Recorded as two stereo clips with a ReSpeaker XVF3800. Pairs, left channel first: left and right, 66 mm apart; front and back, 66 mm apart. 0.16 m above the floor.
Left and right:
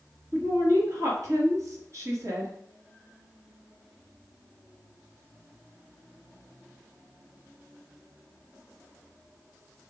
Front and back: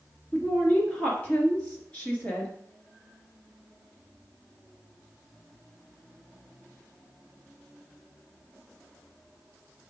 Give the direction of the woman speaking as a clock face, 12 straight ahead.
2 o'clock.